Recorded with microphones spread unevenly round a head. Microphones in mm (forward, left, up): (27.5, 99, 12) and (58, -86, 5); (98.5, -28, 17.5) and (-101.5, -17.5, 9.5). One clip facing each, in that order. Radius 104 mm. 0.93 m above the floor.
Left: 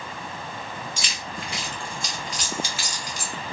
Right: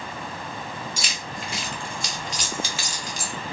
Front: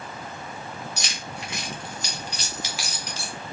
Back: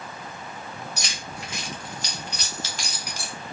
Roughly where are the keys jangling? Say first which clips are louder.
Right 1 dB, front 1 dB; ahead right.